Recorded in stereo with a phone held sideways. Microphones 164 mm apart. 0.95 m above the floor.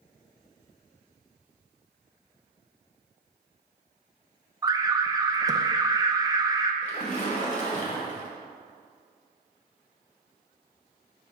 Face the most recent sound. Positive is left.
turn(degrees=50)  # may be behind; listen again after turning